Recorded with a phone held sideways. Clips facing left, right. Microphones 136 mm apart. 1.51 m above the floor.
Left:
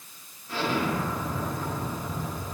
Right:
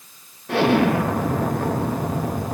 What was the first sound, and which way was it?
An explosion, 70° right (ahead or behind).